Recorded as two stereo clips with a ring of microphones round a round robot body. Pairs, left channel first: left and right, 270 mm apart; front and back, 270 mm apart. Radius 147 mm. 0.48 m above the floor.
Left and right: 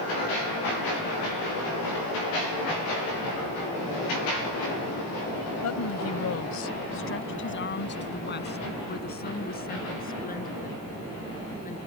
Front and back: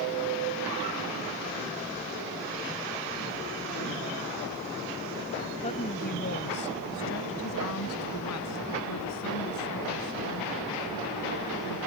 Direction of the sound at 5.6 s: 70° left.